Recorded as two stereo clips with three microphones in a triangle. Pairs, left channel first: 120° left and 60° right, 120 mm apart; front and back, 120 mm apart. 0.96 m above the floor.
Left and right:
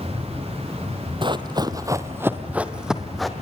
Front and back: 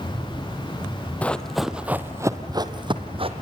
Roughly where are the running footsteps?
Right.